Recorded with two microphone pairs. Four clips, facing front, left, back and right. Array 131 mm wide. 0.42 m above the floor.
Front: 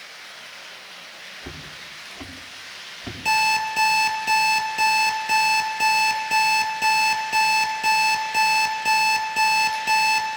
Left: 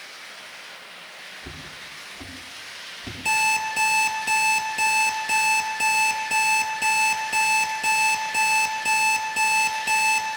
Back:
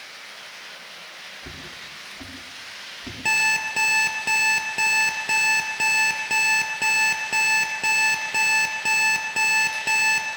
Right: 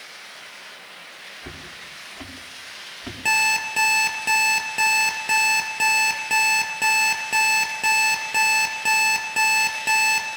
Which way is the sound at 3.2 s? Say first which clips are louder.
Left 1 dB, front 5 dB; 125° right.